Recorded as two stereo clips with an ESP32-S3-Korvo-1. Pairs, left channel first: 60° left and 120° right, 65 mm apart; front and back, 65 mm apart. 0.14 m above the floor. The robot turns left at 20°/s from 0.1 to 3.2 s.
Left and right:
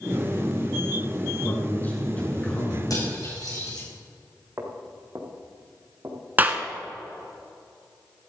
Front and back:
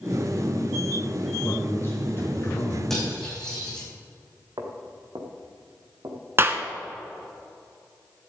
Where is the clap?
165° right, 1.0 m.